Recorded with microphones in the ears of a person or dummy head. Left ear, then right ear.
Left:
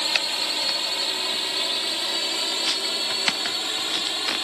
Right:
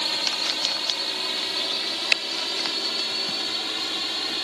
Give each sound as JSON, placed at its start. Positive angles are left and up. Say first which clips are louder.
{"t": 0.0, "sound": "a drone", "louder": "left 1 dB", "side_deg": 15}